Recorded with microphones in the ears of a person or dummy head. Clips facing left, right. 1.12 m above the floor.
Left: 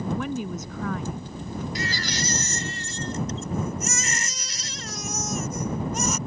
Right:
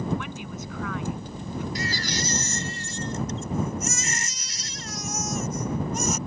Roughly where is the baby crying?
Left.